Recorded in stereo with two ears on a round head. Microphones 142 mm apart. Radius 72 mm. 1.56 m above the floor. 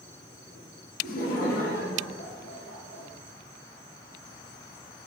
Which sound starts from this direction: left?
Laughter, at 1.0 s.